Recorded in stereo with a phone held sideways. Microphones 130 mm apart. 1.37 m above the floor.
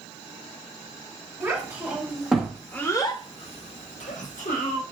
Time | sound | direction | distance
1.4 | a child speaking | 15° right (ahead or behind) | 1.5 m